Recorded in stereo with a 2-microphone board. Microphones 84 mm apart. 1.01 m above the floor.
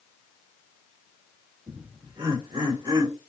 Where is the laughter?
75° right (ahead or behind), 2.5 m.